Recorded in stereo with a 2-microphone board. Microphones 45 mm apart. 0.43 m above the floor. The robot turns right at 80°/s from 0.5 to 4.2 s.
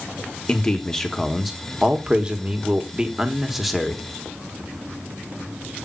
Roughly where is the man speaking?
Centre.